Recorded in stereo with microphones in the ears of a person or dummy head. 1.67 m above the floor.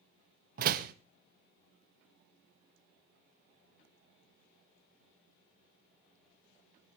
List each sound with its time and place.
0.6 s a door slam: 50° right (ahead or behind), 1.7 m